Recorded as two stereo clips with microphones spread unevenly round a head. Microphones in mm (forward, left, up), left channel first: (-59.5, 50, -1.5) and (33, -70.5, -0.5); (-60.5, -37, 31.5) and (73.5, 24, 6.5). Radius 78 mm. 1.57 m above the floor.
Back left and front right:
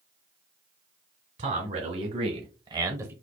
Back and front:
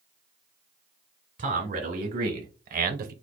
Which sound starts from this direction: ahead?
A man speaking, at 1.4 s.